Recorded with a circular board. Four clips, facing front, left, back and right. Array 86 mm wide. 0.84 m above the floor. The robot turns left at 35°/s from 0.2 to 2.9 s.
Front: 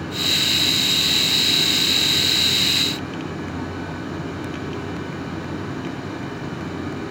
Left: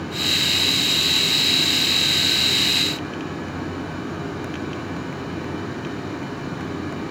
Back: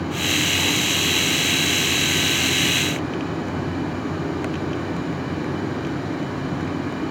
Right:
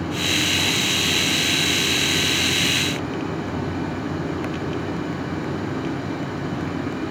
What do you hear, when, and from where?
Only background noise.